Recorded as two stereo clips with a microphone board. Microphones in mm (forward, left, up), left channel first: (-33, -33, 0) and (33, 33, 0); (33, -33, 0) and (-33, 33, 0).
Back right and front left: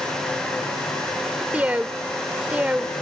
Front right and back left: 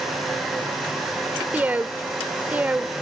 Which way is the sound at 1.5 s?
95° left.